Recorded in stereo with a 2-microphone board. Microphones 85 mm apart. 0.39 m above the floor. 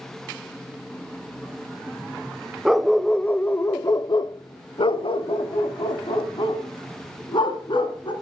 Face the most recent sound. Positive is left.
turn(degrees=65)  # may be behind; listen again after turning